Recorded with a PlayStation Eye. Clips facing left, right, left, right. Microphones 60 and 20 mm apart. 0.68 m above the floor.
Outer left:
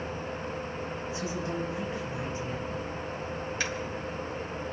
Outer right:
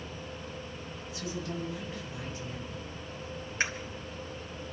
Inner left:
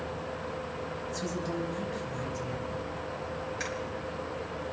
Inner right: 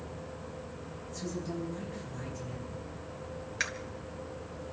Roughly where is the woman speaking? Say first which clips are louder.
Outer left 2 dB, inner left 2 dB; left.